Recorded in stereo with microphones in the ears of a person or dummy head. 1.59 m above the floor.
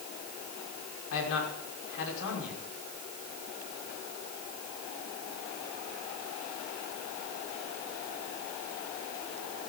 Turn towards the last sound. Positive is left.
turn(degrees=80)